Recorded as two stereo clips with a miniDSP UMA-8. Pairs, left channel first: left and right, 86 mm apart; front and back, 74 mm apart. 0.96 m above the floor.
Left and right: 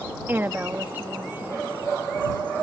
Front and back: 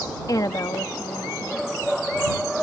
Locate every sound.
0.3 s a woman speaking: 25° right